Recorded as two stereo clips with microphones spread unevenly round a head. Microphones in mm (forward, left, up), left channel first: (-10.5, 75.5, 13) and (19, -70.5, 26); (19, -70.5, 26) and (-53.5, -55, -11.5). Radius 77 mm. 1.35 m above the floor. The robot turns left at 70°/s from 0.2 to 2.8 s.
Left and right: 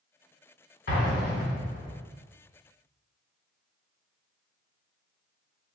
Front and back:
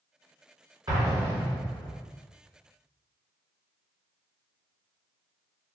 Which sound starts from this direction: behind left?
An explosion, at 0.9 s.